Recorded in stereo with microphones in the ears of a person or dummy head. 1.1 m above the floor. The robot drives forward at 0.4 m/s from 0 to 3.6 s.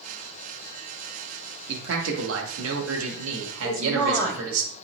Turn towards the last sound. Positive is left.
turn(degrees=15)  # may be behind; listen again after turning